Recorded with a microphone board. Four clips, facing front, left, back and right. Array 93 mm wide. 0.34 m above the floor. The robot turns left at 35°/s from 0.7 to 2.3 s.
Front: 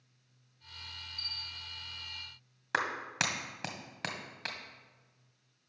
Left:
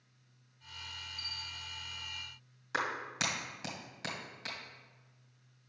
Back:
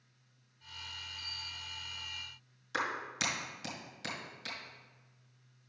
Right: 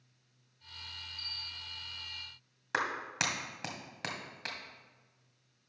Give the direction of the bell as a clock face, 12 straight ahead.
5 o'clock.